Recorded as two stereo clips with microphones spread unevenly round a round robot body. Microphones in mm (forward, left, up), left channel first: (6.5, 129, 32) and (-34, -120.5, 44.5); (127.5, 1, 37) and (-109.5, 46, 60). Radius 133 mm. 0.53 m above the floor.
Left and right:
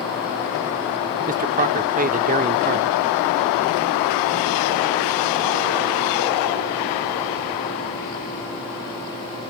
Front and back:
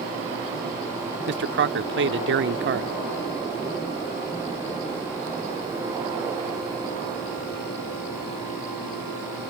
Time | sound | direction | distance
1.3 | a man speaking | 155° right | ?